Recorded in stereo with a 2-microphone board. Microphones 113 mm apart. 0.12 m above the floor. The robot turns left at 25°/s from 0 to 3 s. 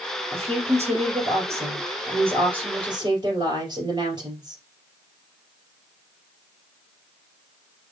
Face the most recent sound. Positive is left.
turn(degrees=-135)